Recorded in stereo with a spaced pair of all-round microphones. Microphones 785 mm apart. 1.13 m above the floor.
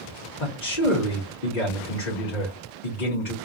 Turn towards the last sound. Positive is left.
turn(degrees=75)  # may be behind; listen again after turning